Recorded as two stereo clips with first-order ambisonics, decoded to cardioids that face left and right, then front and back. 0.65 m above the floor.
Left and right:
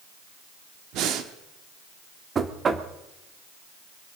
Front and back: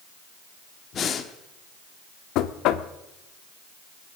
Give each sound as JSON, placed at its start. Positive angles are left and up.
{"t": 0.9, "sound": "breathing", "azimuth_deg": -60, "distance_m": 1.2}
{"t": 2.4, "sound": "knocking", "azimuth_deg": -25, "distance_m": 0.9}